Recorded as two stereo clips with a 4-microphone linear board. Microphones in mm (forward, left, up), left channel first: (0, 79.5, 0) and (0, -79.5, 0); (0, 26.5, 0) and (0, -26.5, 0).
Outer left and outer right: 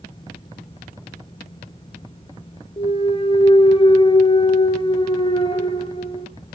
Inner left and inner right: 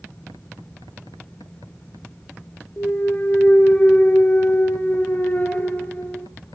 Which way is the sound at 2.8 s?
35° left (ahead or behind).